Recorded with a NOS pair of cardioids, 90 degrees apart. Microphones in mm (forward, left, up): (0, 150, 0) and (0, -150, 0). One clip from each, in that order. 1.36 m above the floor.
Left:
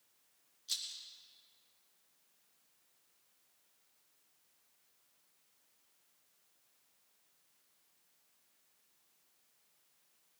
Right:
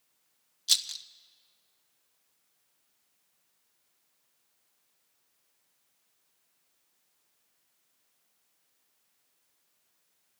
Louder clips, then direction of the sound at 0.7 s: Right 13 dB; 70° right.